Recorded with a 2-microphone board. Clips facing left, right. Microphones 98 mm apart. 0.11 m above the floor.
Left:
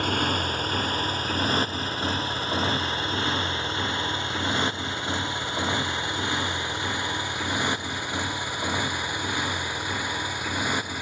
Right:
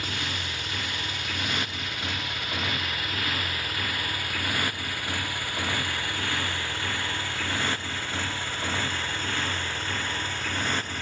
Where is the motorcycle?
45° left (ahead or behind); by 11.0 s 10° left (ahead or behind).